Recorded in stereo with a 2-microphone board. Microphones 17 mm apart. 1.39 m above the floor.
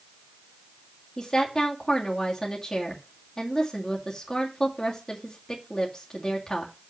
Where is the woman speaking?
35° left (ahead or behind), 2.5 m.